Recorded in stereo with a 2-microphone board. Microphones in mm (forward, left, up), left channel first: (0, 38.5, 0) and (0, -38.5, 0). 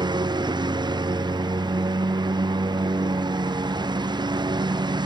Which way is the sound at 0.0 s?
85° right.